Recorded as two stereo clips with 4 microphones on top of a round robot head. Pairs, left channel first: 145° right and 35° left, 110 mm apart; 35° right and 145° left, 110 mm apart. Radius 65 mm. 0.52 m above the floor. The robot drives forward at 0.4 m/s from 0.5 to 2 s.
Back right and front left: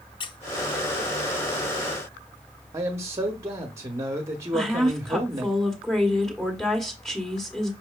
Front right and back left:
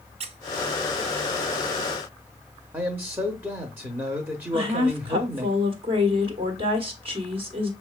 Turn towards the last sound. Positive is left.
turn(degrees=130)